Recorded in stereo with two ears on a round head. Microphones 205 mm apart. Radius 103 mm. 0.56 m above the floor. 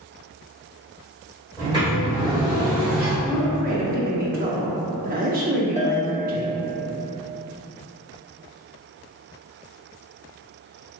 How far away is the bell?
About 0.7 m.